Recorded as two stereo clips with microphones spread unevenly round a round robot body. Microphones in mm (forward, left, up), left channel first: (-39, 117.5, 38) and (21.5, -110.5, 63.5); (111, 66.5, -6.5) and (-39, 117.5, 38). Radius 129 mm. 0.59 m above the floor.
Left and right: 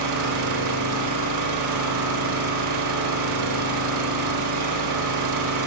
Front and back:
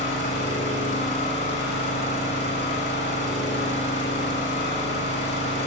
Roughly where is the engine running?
Right.